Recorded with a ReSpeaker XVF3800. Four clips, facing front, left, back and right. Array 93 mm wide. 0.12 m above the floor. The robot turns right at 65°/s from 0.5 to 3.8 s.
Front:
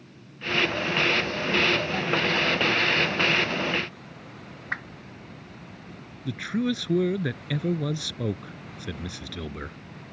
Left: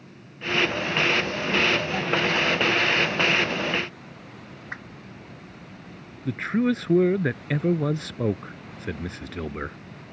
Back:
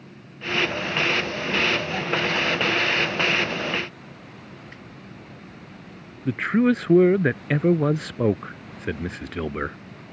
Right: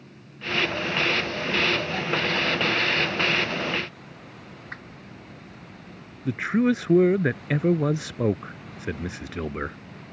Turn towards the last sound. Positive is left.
turn(degrees=-165)